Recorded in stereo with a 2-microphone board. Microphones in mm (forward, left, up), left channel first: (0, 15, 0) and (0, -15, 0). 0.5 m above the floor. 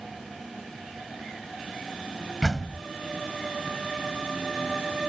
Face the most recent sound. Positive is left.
turn(degrees=0)  # may be behind; listen again after turning